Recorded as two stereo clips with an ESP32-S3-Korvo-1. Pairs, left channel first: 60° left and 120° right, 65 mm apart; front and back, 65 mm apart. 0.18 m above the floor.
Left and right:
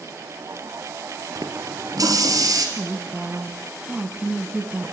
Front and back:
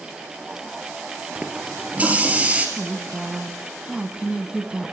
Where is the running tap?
115° right, 2.5 m.